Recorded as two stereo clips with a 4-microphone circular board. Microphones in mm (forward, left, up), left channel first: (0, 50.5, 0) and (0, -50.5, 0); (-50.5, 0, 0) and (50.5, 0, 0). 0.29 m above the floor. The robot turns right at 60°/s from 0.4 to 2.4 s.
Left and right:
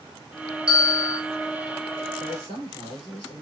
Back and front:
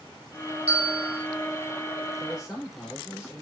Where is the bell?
10° right, 2.5 m; by 1.2 s 25° left, 2.5 m.